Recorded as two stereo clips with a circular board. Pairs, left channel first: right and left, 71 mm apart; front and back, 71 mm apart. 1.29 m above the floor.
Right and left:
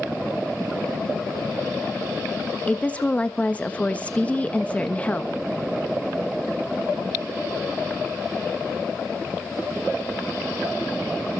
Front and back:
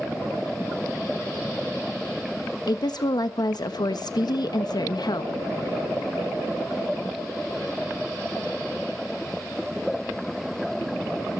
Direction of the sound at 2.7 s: 20° right.